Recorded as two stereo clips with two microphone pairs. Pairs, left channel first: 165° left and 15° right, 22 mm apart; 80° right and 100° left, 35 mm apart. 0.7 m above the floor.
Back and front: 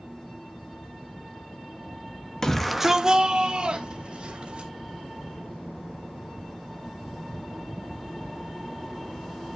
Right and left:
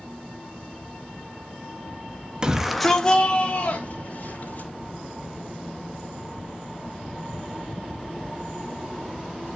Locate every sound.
2.4 s a shout: 115° left, 0.8 m; by 4.7 s 40° right, 2.5 m